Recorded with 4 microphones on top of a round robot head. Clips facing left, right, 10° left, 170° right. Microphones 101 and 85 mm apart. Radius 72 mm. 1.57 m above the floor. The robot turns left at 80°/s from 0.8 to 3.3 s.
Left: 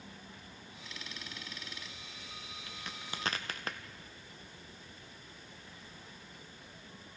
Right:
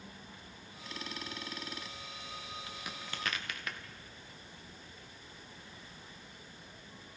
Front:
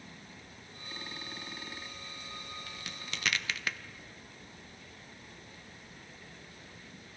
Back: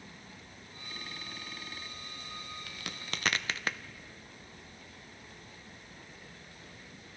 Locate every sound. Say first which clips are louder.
2.7 s a crack: right 1 dB, back 2 dB; 155° right, 0.6 m; by 3.8 s 150° left, 0.6 m